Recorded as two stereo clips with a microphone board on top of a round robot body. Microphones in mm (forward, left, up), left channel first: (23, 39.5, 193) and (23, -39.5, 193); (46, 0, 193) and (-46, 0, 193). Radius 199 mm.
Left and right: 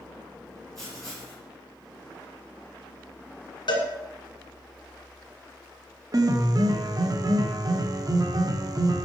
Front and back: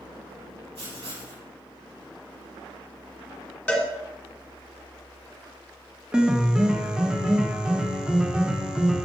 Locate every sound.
0.8 s writing: 175° left, 4.5 m
3.7 s a cowbell: 75° left, 2 m
6.1 s a piano: 100° right, 1.0 m